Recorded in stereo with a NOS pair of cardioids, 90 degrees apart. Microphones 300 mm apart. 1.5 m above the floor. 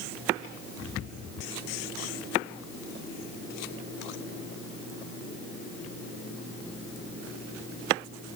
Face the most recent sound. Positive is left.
No sound to turn to.